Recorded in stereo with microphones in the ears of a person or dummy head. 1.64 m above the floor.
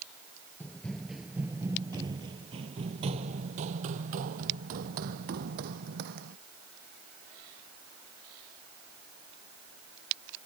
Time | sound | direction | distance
0.6 | running footsteps | 10° left (ahead or behind) | ?